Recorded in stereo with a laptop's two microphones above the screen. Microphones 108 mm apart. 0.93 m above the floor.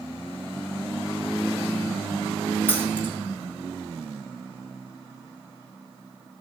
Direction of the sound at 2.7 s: 20° left (ahead or behind).